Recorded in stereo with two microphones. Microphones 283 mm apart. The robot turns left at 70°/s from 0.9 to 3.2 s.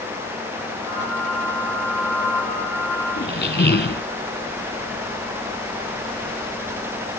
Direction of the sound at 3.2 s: 40° left (ahead or behind).